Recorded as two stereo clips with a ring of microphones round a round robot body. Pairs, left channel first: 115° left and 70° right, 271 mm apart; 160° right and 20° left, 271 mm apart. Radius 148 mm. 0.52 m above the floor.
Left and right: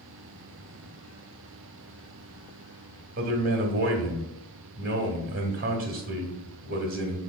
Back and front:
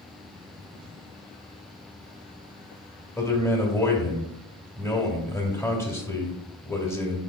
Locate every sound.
3.2 s a man speaking: 90° right, 1.0 m